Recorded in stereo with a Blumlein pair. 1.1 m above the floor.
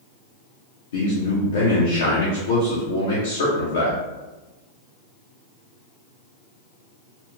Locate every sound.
0.9 s a man speaking: 65° left, 0.8 m